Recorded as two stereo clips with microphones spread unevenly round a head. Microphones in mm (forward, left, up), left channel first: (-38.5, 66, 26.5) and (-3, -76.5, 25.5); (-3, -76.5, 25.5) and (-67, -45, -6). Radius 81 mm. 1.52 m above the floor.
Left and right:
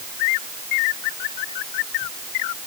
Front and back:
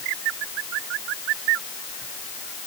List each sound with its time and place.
Only background noise.